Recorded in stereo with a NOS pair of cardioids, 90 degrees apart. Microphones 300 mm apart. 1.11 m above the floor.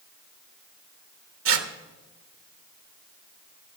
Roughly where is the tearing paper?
Ahead right.